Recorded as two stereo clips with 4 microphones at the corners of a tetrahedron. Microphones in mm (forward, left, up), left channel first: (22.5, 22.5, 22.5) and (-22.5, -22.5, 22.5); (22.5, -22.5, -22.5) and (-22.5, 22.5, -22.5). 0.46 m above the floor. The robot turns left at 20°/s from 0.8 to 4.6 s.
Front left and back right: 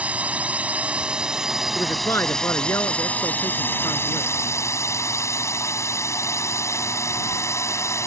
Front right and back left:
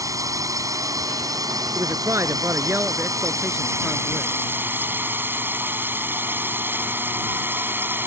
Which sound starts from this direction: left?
A man speaking, at 1.8 s.